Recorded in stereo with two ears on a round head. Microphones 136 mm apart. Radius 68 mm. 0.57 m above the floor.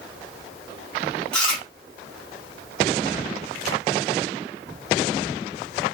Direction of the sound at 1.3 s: 5° left (ahead or behind).